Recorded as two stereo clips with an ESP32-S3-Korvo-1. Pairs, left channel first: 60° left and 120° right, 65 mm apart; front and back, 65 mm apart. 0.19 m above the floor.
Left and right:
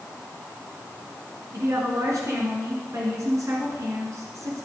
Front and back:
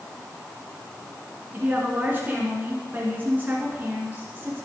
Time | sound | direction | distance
1.5 | a woman speaking | 125° right | 3 m